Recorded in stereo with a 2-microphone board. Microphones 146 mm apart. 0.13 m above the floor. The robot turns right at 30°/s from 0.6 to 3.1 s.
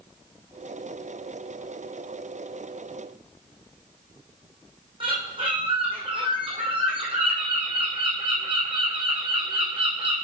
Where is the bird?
35° right (ahead or behind), 2 m.